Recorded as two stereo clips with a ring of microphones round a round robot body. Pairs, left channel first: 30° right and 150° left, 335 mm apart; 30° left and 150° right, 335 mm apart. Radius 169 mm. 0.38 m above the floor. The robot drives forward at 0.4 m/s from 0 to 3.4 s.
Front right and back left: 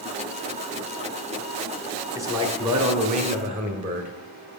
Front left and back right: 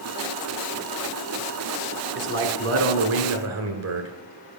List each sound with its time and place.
2.1 s a man speaking: 135° right, 1.3 m; by 4.1 s 155° right, 1.6 m